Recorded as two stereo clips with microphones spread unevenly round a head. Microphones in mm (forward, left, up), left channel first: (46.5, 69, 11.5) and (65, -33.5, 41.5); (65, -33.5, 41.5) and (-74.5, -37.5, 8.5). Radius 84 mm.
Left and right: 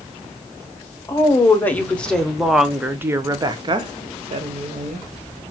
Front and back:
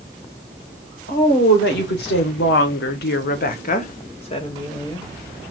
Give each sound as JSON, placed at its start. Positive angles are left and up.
{"t": 1.1, "sound": "a woman speaking", "azimuth_deg": 35, "distance_m": 1.4}